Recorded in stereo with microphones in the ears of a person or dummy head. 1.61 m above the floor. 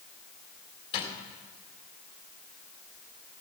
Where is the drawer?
30° left (ahead or behind), 3.5 m.